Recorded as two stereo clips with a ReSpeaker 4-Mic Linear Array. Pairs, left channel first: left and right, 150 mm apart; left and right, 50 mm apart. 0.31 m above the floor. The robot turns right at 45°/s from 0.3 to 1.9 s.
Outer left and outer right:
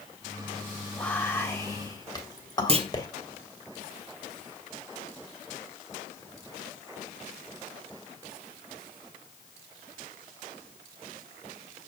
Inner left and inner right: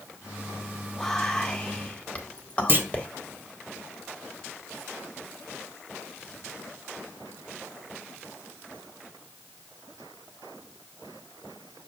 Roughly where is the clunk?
Right.